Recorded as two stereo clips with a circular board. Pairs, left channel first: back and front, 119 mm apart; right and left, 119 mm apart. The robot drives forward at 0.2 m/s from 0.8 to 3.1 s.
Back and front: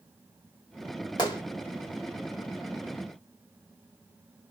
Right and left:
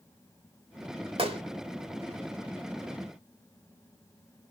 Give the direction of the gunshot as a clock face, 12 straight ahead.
8 o'clock.